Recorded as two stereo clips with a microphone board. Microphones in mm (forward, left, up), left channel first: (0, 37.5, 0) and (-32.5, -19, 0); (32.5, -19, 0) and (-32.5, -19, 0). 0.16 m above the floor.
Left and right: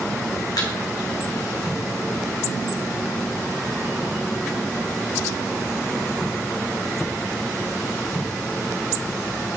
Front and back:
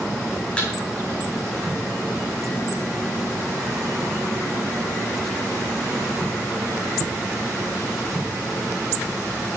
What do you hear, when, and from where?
0.6 s a thud: 70° left, 2 m